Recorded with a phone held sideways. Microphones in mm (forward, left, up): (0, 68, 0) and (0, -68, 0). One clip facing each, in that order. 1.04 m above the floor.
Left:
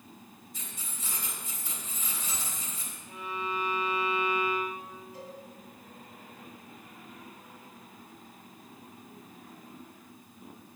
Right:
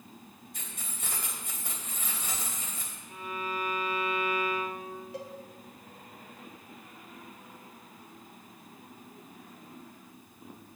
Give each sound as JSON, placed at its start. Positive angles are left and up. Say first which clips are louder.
{"t": 0.5, "sound": "keys jangling", "louder": "even", "side_deg": -60, "distance_m": 3.0}
{"t": 3.1, "sound": "a violin", "louder": "left 1 dB", "side_deg": 25, "distance_m": 4.5}
{"t": 5.1, "sound": "a cowbell", "louder": "right 4 dB", "side_deg": -75, "distance_m": 1.3}